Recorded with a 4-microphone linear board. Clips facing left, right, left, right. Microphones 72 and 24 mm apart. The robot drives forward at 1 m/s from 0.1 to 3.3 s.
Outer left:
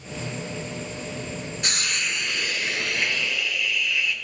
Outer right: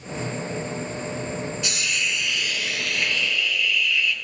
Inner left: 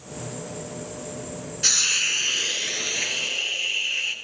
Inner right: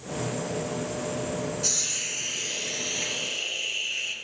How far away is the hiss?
About 0.9 m.